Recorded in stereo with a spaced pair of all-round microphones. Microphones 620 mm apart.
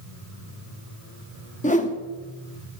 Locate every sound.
1.6 s a whoosh: 10° left (ahead or behind), 0.7 m